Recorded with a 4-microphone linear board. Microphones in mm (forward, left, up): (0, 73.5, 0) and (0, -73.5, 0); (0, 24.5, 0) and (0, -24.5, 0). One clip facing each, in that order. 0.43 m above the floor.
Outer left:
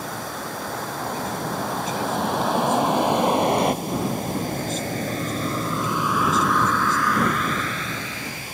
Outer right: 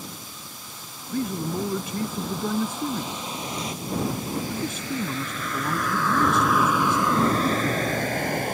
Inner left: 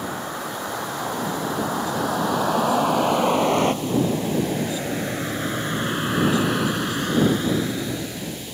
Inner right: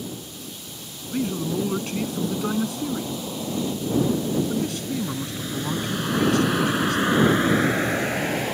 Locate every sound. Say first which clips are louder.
0.0 s a vehicle: outer left 10 dB, inner left 7 dB; 75° left (ahead or behind); by 8.6 s 55° right (ahead or behind)
1.1 s a man speaking: outer right 5 dB, inner right 4 dB; 65° right (ahead or behind)